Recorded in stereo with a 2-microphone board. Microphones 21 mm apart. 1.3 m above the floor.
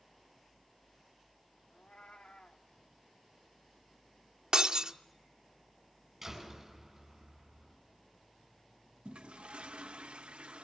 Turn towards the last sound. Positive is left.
turn(degrees=-85)